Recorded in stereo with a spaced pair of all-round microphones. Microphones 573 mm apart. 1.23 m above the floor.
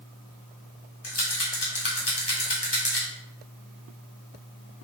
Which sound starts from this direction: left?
A rattle, at 1.0 s.